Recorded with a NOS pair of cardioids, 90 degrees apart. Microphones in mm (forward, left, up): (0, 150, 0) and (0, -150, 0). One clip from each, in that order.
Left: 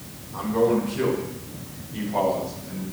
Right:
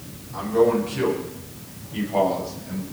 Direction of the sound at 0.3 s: 40° right.